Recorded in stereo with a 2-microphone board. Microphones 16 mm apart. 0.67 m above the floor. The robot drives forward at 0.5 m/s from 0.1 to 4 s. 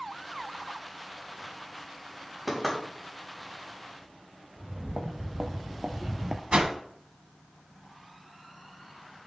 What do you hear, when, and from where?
2.5 s knocking: centre (ahead or behind), 3.5 m
4.6 s footsteps: 70° right (ahead or behind), 1.9 m; by 6.4 s 20° right (ahead or behind), 0.9 m
6.5 s a whoosh: 60° right (ahead or behind), 1.1 m